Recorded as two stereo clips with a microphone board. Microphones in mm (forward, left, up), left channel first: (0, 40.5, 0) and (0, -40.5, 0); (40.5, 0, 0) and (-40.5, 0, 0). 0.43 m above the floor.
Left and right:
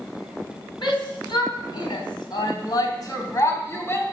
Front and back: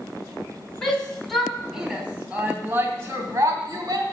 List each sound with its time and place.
0.8 s a shout: 85° left, 3.5 m; by 4.0 s 150° left, 3 m